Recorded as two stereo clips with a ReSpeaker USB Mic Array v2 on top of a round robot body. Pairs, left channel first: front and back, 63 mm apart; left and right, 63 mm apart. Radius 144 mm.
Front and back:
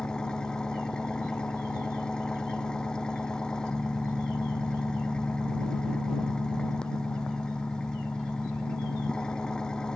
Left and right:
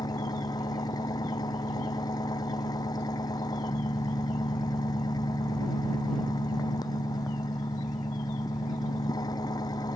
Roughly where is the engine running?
Left.